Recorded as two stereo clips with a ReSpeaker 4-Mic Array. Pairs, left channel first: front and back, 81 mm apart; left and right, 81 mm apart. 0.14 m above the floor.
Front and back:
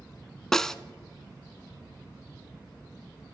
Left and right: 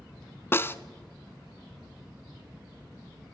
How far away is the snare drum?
About 0.7 m.